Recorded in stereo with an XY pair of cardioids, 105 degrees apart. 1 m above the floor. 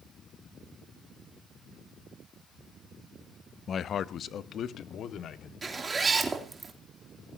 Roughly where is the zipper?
Ahead right.